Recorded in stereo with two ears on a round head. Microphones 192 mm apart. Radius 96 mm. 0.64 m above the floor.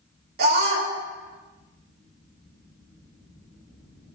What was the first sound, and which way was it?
A scream, 45° right (ahead or behind).